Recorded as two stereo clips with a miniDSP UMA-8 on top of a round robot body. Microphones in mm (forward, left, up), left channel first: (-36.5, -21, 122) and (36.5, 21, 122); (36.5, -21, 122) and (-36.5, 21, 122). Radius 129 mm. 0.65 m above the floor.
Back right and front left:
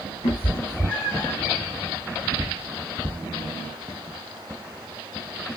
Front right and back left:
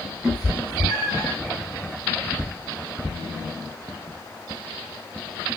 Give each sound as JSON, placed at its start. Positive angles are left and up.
{"t": 0.2, "sound": "a cat meowing", "azimuth_deg": -125, "distance_m": 3.0}